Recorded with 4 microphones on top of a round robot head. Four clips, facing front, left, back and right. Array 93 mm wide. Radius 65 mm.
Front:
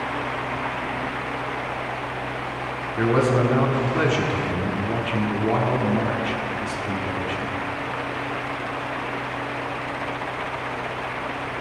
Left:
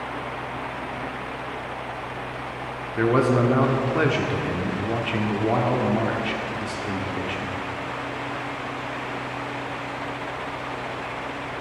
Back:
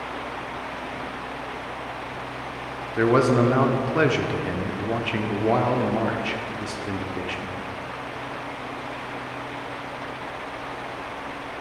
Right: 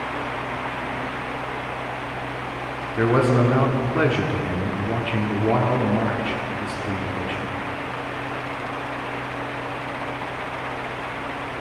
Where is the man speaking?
175° right, 1.0 m.